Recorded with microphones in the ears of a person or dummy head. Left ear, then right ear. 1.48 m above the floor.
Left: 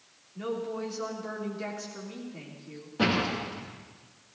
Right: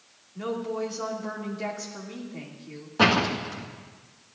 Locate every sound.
0.3 s a woman speaking: 20° right (ahead or behind), 2.5 m
3.0 s a door slam: 45° right (ahead or behind), 1.9 m